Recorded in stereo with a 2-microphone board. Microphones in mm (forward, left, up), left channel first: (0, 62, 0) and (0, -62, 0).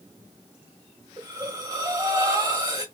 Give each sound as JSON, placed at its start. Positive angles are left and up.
{"t": 1.2, "sound": "breathing", "side_deg": -30, "distance_m": 1.4}